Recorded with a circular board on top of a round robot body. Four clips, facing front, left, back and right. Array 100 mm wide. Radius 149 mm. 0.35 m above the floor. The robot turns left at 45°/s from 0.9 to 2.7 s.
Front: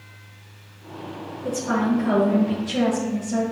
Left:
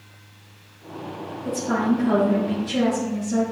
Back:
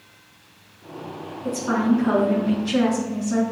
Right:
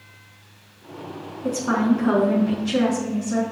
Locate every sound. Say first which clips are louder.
1.4 s a woman speaking: right 2 dB, back 1 dB; 95° right, 6 m; by 3.4 s 155° right, 6 m